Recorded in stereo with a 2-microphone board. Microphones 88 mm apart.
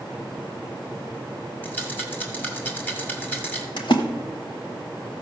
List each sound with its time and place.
1.6 s a rattle: 20° left (ahead or behind), 2 m
3.8 s a splash: 65° left (ahead or behind), 1.3 m